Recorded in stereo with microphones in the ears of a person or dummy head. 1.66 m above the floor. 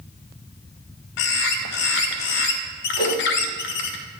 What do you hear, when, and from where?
1.2 s a bird: 65° left (ahead or behind), 0.6 m
3.0 s a whoosh: 50° left (ahead or behind), 2.5 m